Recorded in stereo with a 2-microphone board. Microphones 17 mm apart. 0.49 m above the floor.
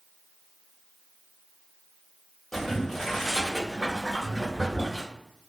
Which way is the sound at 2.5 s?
25° left (ahead or behind).